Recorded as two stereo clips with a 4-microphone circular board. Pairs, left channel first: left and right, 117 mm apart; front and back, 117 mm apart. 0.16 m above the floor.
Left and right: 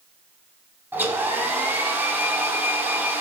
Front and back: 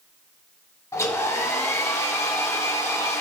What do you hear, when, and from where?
0.9 s a hair dryer: 35° right, 1.1 m